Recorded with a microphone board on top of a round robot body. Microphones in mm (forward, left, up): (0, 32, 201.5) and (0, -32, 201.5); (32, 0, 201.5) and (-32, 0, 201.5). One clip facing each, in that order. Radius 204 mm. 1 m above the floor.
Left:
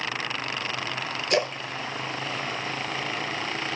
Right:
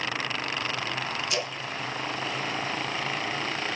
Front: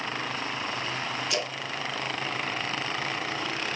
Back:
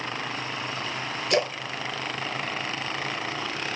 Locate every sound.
1.3 s a splash: 135° left, 0.6 m